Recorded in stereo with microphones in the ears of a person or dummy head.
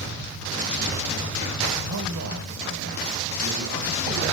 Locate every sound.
1.9 s a man speaking: 85° right, 1.4 m